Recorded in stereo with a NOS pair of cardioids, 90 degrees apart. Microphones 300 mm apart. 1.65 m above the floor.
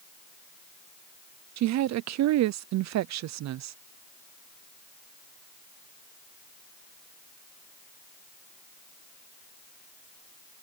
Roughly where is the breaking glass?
No breaking glass in this recording.